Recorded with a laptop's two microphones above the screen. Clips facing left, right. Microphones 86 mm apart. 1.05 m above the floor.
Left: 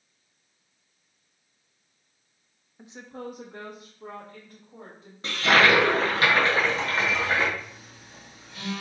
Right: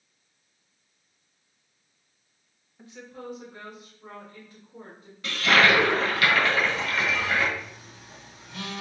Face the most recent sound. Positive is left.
turn(degrees=-75)  # may be behind; listen again after turning